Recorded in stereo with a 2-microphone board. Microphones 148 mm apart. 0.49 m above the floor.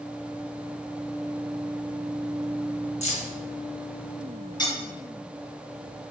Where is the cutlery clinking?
30° left (ahead or behind), 1.6 m.